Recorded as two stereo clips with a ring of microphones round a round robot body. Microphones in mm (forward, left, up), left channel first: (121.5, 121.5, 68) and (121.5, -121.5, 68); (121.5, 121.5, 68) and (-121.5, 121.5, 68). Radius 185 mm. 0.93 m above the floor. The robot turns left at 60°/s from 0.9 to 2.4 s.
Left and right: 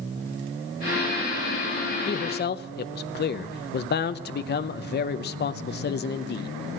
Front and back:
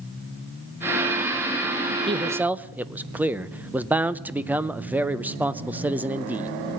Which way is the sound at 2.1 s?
120° left.